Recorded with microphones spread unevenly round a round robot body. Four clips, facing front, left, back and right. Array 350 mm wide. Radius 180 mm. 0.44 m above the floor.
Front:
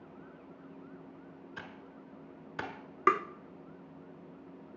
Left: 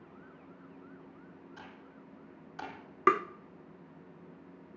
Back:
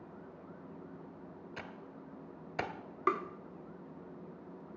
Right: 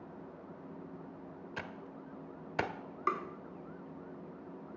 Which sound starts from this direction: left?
Tapping, at 3.1 s.